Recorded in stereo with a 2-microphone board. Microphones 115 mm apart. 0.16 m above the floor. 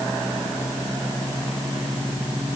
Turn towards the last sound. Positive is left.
No sound to turn to.